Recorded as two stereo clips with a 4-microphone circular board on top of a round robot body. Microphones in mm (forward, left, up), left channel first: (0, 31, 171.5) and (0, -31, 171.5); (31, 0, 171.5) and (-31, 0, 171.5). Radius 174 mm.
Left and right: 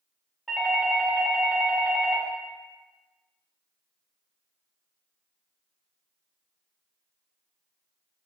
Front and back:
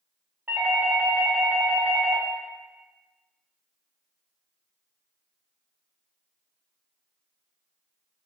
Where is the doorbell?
170° left, 1.7 m.